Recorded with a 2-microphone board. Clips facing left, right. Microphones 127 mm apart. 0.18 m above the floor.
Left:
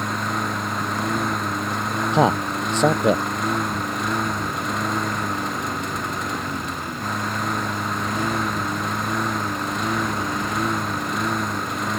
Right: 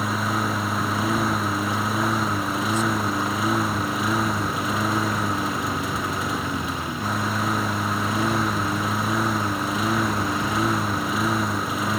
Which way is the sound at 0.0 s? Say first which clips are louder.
Right 1 dB; 5° right (ahead or behind).